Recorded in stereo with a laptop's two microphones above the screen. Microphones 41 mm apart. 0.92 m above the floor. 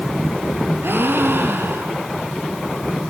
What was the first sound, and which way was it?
A gasp, 75° right (ahead or behind).